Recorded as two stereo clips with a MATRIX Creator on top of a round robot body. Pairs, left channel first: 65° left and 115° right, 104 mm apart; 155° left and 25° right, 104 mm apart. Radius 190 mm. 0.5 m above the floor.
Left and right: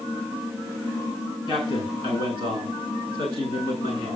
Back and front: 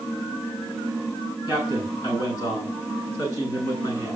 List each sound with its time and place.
1.5 s a man speaking: 140° right, 8.5 m